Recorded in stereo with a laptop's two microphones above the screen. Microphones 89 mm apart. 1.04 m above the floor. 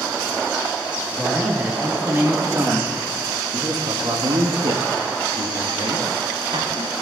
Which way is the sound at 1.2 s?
15° right (ahead or behind).